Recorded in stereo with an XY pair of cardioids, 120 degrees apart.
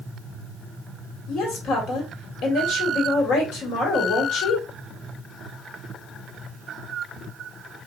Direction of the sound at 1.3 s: 70° left.